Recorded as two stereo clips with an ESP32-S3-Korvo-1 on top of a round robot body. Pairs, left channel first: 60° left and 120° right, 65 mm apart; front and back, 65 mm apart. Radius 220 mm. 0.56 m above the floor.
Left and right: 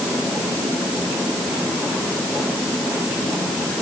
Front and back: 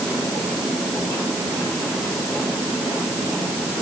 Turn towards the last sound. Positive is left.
No sound to turn to.